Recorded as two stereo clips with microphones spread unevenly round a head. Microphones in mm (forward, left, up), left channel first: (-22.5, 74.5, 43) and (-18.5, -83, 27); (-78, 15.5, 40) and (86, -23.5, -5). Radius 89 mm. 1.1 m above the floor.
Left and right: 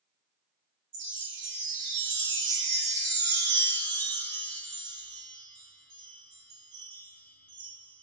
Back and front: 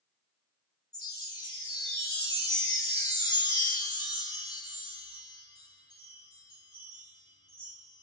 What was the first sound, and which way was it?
A chime, 125° right.